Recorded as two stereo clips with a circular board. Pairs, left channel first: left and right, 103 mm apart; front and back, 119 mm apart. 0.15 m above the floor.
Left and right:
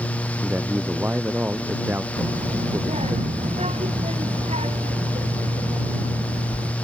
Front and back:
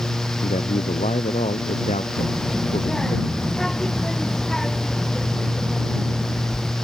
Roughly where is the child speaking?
Right.